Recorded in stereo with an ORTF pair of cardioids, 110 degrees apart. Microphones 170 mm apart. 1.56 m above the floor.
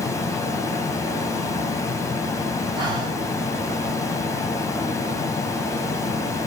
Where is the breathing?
25° right, 2 m.